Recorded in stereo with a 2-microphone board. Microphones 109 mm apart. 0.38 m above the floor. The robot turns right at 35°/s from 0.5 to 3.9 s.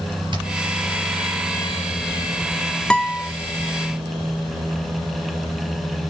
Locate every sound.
0.3 s hammering: 45° right (ahead or behind), 4 m
2.9 s a guitar: 10° left (ahead or behind), 0.8 m; by 3.3 s 20° left (ahead or behind), 0.8 m